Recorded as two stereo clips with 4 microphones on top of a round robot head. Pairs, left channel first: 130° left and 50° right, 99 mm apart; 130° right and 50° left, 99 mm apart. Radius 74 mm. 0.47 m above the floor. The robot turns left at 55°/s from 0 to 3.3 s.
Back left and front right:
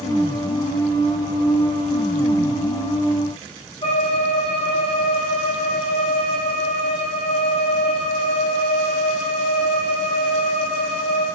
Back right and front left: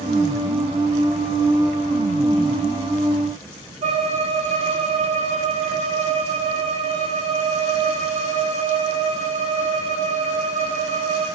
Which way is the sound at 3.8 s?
85° left.